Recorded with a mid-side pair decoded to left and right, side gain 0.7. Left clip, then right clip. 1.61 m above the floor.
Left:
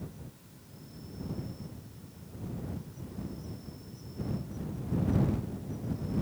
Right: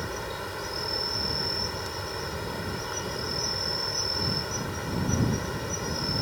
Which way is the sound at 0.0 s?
70° right.